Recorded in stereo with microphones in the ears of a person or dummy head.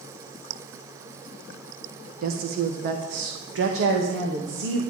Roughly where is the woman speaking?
Right.